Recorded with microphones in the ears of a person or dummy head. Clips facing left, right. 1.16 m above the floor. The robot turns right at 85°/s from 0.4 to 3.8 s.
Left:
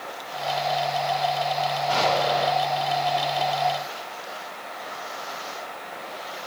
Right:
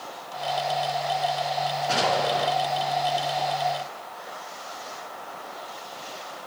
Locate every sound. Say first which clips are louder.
1.9 s an explosion: left 1 dB; 35° right, 4 m; by 2.5 s 15° left, 4 m